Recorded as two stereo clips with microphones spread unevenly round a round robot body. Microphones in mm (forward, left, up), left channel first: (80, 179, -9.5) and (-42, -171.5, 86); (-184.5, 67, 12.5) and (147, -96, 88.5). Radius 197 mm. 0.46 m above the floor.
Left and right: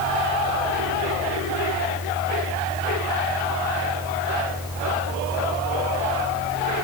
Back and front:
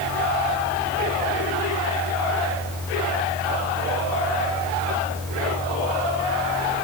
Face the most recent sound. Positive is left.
No sound to turn to.